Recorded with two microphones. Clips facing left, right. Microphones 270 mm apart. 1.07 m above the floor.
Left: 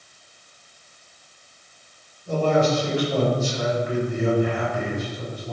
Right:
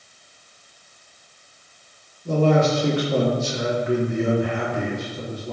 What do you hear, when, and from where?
2.2 s a man speaking: 75° right (ahead or behind), 3 m